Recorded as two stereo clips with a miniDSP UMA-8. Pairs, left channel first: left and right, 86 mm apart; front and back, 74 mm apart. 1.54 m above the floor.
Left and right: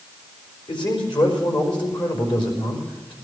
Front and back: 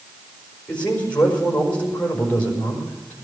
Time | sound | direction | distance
0.7 | a man speaking | 70° left | 4.5 m